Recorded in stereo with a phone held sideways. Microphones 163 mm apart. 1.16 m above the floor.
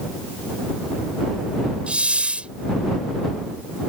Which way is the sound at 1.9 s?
5° right (ahead or behind).